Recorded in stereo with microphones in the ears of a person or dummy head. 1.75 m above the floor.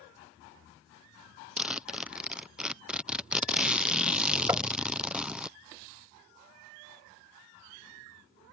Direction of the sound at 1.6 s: Centre (ahead or behind).